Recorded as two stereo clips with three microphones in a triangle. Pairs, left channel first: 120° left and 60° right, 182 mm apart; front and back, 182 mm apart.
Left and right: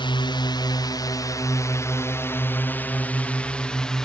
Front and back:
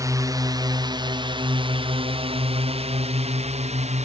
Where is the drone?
135° left; by 4.1 s 155° right.